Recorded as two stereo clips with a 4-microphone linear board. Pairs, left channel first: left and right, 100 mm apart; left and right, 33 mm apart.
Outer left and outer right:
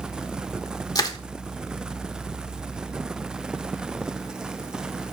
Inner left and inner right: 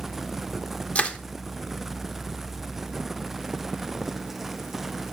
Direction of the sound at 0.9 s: 40° left (ahead or behind).